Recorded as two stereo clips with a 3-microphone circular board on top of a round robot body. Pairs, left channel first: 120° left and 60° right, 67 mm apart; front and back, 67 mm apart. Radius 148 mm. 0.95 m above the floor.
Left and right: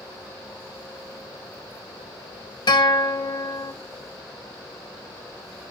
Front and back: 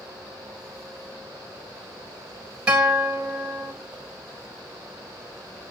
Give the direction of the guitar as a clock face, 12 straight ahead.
9 o'clock.